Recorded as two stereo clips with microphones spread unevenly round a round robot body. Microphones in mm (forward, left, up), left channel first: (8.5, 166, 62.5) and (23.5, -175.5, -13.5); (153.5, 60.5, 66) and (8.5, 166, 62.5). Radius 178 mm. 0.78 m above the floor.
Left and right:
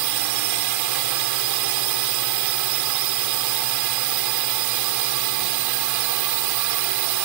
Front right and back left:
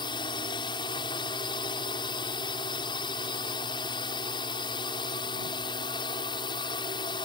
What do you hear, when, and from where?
0.0 s a drone: 105° right